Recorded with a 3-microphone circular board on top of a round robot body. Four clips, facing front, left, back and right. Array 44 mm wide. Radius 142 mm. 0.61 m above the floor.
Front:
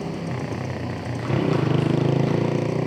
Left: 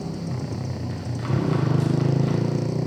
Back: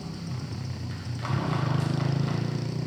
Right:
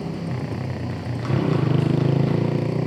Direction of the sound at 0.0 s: 20° right.